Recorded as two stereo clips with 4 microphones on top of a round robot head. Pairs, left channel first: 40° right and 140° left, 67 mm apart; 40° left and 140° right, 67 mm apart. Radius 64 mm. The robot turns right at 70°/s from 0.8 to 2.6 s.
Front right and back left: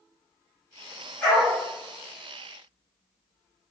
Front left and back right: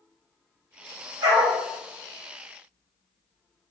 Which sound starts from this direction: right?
A dog barking, at 1.2 s.